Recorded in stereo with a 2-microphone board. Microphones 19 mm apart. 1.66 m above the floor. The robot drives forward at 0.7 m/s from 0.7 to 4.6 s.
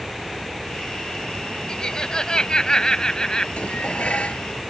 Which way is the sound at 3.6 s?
80° left.